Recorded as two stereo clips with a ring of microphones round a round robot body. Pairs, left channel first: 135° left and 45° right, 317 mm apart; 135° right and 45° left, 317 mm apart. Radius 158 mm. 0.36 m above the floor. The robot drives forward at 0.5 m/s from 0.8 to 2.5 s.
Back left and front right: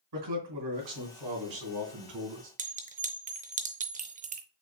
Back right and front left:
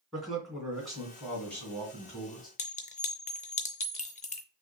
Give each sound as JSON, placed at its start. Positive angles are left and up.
{"t": 0.1, "sound": "a man speaking", "azimuth_deg": -45, "distance_m": 3.0}
{"t": 2.6, "sound": "a clink", "azimuth_deg": -90, "distance_m": 0.5}